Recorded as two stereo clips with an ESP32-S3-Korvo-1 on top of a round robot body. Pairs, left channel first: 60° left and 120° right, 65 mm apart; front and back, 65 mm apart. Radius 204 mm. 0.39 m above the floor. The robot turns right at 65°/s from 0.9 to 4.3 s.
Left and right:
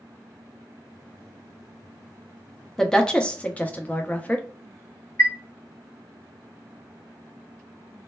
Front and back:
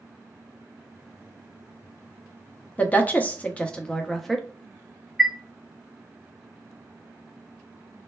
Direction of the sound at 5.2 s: 100° left.